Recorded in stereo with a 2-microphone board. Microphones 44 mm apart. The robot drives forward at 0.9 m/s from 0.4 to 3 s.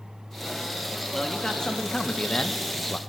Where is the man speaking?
10° left (ahead or behind), 2 m; by 3.0 s 25° left (ahead or behind), 0.9 m.